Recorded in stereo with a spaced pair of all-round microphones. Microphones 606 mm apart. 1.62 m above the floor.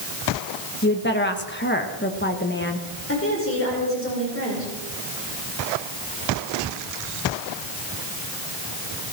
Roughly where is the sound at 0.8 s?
Centre.